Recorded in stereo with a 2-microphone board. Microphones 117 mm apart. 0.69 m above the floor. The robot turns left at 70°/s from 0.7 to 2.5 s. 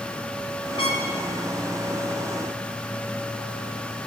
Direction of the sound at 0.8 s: 50° left (ahead or behind).